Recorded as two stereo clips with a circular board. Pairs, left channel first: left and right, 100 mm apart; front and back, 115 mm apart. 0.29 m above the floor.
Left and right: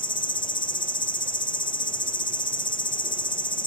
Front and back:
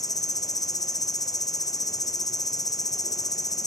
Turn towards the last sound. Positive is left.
turn(degrees=55)